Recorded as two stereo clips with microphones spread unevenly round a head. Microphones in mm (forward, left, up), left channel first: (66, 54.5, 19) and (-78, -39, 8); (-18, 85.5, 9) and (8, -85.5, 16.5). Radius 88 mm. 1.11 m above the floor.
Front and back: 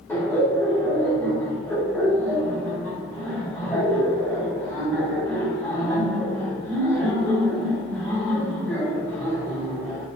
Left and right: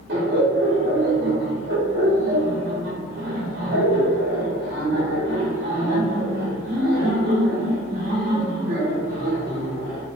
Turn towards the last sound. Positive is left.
turn(degrees=-45)